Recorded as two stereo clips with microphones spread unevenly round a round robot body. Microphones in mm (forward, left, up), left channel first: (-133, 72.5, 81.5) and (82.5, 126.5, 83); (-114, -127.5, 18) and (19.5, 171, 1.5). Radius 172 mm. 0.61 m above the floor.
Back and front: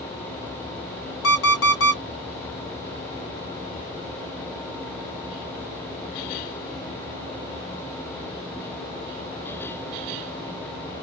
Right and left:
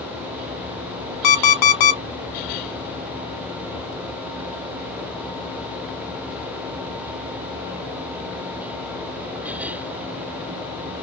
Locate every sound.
1.2 s an alarm clock: 120° right, 0.8 m